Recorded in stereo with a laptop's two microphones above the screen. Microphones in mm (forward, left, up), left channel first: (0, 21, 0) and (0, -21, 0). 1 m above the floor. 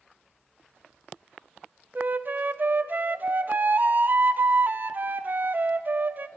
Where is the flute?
45° right (ahead or behind), 0.6 m.